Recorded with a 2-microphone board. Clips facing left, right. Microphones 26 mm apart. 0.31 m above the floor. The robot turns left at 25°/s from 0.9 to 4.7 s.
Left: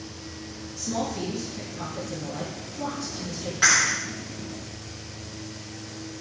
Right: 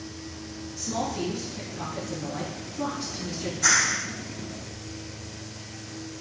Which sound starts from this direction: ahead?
A woman speaking, at 0.8 s.